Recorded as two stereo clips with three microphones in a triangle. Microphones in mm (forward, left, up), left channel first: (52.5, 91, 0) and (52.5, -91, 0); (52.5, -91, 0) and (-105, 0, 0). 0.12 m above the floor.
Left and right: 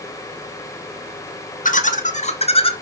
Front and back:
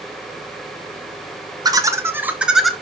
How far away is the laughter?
About 2 m.